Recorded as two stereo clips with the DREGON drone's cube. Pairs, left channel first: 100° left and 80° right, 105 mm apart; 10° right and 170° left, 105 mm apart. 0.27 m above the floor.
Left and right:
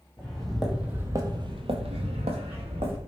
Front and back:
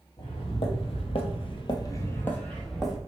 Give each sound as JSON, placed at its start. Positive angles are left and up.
{"t": 0.2, "sound": "footsteps", "azimuth_deg": 20, "distance_m": 0.8}